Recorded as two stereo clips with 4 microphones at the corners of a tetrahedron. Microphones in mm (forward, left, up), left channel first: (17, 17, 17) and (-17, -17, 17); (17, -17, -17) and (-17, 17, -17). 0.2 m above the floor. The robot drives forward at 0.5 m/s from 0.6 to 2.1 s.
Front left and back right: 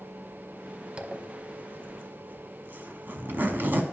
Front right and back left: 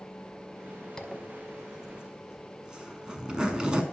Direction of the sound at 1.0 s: 100° right.